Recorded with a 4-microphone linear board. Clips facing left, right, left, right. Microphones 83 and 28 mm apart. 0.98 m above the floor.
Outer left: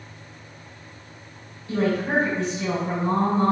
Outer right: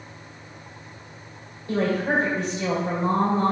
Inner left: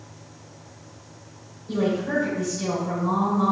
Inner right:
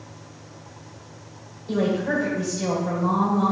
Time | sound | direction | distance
1.7 | a woman speaking | 55° right (ahead or behind) | 3 m